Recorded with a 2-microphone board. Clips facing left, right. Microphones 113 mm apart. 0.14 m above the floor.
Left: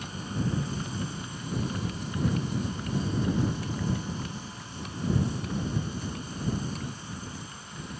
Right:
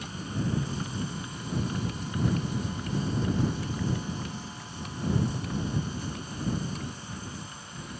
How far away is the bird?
No bird in this recording.